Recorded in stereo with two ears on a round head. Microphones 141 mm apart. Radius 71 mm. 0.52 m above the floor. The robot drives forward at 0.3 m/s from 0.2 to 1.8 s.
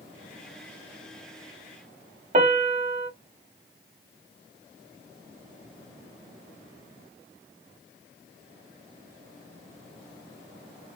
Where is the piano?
45° right (ahead or behind), 0.7 m.